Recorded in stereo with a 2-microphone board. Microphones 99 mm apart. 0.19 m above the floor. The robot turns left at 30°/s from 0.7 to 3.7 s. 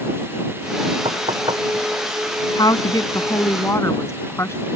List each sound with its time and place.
1.1 s knocking: 70° right (ahead or behind); by 1.6 s 55° right (ahead or behind)
2.6 s a woman speaking: 80° left; by 4.6 s 45° left